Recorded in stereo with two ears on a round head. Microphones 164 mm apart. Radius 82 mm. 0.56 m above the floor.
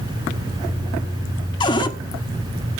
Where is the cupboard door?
25° left (ahead or behind), 1.2 m.